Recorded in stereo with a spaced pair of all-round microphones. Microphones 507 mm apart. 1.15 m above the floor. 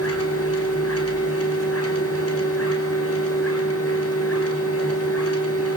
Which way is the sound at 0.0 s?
25° left (ahead or behind).